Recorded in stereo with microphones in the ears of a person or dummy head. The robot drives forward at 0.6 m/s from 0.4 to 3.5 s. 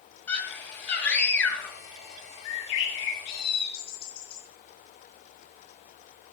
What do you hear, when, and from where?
0.3 s a scream: 10° left (ahead or behind), 4 m
2.5 s a bird: 70° left (ahead or behind), 1.5 m; by 4.4 s 50° left (ahead or behind), 1.8 m